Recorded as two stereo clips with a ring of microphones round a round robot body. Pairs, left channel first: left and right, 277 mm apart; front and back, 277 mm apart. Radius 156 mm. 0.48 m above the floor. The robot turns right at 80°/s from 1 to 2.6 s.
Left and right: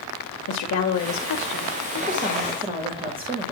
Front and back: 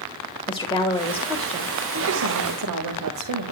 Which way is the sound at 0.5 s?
70° left.